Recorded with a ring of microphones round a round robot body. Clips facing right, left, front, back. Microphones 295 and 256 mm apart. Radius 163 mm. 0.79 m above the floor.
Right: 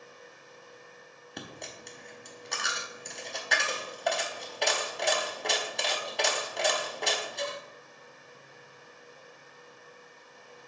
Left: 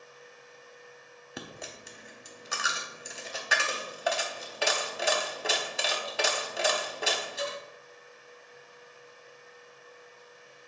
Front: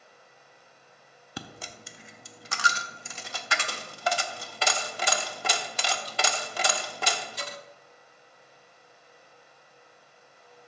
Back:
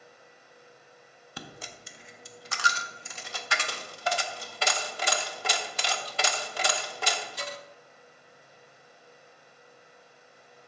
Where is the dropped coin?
5° left, 0.5 m.